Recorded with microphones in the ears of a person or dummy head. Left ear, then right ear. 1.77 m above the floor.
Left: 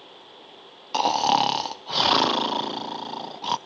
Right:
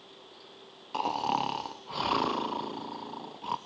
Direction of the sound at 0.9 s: 35° left (ahead or behind).